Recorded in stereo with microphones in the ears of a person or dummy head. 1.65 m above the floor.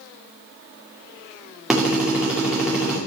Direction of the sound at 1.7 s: 5° right (ahead or behind).